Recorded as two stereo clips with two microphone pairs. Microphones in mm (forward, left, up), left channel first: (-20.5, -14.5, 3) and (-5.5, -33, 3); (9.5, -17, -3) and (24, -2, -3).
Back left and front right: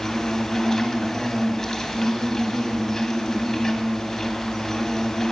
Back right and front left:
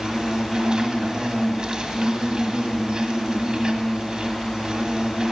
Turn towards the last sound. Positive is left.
turn(degrees=60)